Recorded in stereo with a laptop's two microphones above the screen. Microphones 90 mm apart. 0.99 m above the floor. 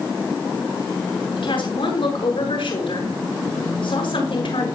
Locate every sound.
1.4 s a woman speaking: 75° left (ahead or behind), 6.5 m